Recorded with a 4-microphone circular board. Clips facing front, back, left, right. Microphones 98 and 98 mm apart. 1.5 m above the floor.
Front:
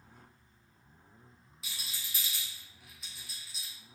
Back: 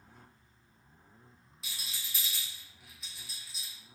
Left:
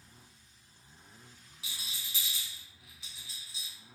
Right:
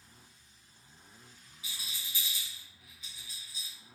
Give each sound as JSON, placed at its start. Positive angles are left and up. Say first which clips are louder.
{"t": 1.6, "sound": "a rattle", "louder": "even, even", "azimuth_deg": 90, "distance_m": 0.9}